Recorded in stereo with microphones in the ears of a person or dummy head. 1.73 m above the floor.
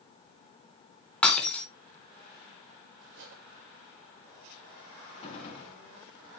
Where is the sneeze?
No sneeze in this recording.